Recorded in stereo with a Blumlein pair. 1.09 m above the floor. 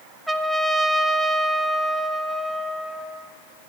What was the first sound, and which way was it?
A trumpet, 5° right.